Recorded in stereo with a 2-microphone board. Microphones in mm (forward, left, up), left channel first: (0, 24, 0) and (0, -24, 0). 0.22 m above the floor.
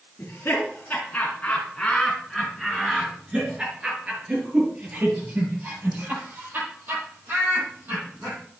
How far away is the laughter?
About 2.5 m.